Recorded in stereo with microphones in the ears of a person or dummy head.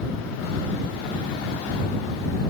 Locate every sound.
Only background noise.